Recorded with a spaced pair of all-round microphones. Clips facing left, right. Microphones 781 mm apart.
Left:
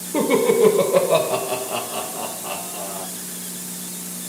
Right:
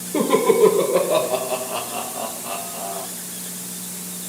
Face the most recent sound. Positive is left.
turn(degrees=55)  # may be behind; listen again after turning